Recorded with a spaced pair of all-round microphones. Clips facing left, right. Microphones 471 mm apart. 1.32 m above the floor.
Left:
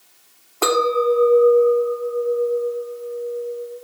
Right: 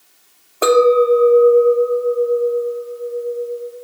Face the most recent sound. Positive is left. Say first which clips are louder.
# right 7 dB
turn(degrees=15)  # may be behind; listen again after turning